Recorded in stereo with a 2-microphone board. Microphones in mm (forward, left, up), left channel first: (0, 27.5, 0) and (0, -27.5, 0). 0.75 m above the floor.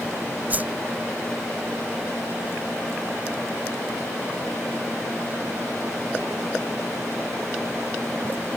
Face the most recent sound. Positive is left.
turn(degrees=-35)  # may be behind; listen again after turning